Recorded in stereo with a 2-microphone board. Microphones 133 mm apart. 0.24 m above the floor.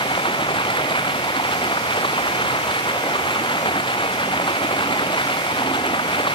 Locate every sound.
0.0 s running water: 40° left (ahead or behind)